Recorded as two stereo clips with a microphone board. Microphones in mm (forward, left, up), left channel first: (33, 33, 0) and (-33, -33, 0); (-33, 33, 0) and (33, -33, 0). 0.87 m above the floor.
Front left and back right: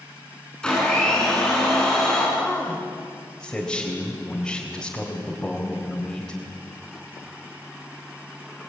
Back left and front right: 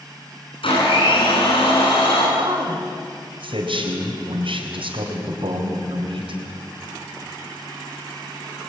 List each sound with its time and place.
0.6 s a blender: 125° left, 9 m
2.4 s a man speaking: 40° right, 3.5 m